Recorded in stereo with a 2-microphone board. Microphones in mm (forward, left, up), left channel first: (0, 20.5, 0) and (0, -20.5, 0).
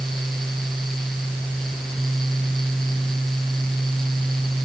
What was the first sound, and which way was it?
Only background noise.